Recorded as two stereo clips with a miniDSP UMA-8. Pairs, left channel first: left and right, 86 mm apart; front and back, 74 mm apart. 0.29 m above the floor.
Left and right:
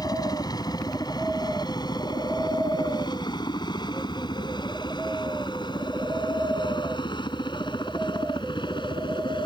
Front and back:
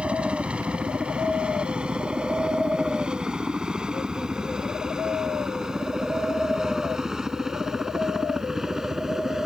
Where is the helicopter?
105° left; by 9.5 s 95° left.